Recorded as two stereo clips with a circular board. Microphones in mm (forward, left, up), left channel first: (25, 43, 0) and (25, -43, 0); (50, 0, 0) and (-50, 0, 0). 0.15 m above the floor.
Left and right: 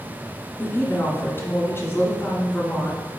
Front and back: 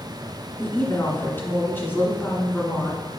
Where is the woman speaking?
50° left, 1.6 m.